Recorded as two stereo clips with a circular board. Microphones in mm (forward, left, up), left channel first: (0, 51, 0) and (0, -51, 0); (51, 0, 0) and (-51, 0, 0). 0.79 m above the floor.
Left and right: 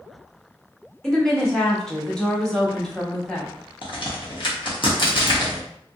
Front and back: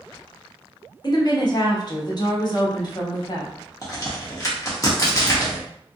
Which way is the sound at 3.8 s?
55° left.